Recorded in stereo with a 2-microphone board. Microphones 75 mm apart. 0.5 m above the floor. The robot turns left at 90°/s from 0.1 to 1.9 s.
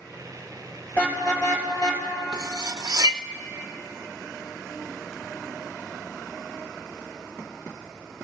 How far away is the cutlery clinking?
About 0.5 m.